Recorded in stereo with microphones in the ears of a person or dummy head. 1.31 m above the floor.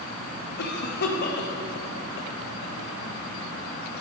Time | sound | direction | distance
0.6 | a cough | 60° left (ahead or behind) | 1.1 m